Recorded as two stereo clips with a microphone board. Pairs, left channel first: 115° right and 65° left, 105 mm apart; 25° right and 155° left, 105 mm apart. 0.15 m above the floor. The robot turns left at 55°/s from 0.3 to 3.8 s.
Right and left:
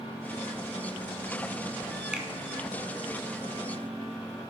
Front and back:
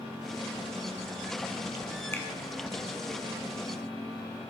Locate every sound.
2.1 s a finger snap: straight ahead, 1.2 m; by 2.3 s 5° right, 1.2 m